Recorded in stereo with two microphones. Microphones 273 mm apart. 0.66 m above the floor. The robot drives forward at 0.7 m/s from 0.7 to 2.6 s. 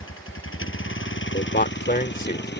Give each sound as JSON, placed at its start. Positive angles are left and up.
{"t": 0.0, "sound": "a vehicle", "side_deg": 45}
{"t": 1.3, "sound": "a man speaking", "side_deg": 35}